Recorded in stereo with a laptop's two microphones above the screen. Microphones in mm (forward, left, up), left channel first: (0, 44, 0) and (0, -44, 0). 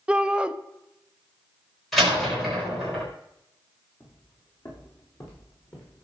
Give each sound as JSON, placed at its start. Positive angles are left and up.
{"t": 0.1, "sound": "a shout", "side_deg": -15, "distance_m": 0.9}
{"t": 1.9, "sound": "a door slam", "side_deg": 0, "distance_m": 3.5}
{"t": 4.0, "sound": "footsteps", "side_deg": 40, "distance_m": 5.0}